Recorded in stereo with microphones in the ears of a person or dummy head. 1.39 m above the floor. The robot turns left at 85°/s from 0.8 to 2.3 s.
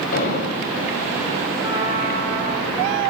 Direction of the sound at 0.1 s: 50° left (ahead or behind).